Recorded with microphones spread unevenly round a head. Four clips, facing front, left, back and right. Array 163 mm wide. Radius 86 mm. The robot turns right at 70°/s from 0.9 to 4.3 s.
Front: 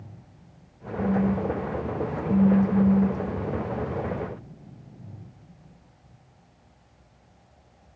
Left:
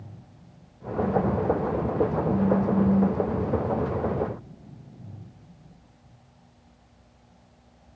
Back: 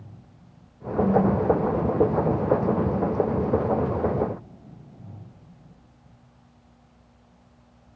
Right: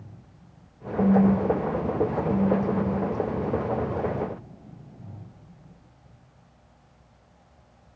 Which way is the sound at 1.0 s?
105° right.